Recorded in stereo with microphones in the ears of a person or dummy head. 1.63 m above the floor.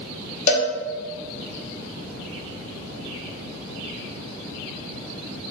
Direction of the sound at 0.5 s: 45° left (ahead or behind).